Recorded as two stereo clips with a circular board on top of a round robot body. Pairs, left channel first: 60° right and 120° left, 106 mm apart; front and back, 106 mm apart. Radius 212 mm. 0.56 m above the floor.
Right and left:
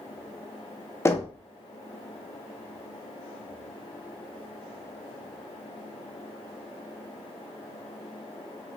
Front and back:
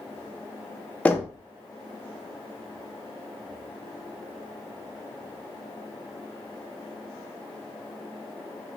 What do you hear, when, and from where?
1.1 s knocking: 60° right, 0.8 m